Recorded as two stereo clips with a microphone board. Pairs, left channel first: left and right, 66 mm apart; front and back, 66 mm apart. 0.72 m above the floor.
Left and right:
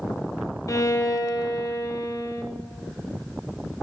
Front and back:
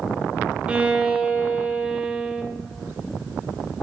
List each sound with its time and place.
0.7 s a violin: 110° left, 0.5 m